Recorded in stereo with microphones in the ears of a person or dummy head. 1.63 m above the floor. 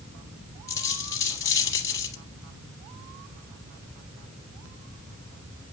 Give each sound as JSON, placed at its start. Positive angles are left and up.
{"t": 0.7, "sound": "a dropped coin", "side_deg": 15, "distance_m": 3.0}